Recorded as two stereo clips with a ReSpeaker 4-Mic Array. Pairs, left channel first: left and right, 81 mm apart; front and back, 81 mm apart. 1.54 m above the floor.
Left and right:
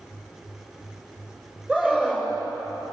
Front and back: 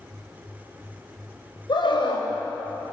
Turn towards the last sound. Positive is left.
turn(degrees=-15)